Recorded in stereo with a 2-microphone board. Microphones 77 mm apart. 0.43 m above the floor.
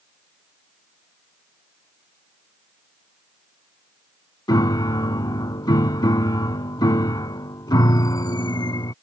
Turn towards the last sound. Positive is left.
turn(degrees=60)  # may be behind; listen again after turning